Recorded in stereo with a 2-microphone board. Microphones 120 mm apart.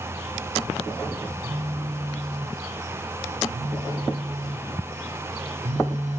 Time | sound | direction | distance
1.4 | a phone buzzing | 75° right (ahead or behind) | 2 m